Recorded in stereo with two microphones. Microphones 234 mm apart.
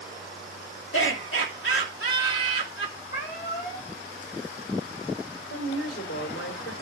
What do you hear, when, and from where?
0.9 s laughter: 55° left (ahead or behind), 3 m
3.1 s a cat meowing: 40° left (ahead or behind), 3 m
5.5 s a woman speaking: 65° left (ahead or behind), 3 m